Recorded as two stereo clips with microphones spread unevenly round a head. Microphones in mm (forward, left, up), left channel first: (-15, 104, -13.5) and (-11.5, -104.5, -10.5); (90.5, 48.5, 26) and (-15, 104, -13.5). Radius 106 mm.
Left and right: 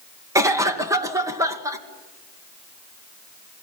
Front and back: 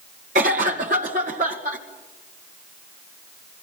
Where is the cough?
165° right, 2.5 m.